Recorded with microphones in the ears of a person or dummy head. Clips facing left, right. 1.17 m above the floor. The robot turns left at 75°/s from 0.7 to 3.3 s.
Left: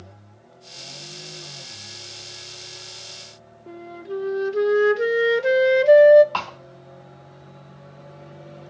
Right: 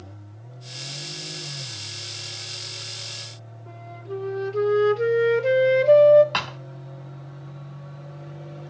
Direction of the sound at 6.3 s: 20° right (ahead or behind).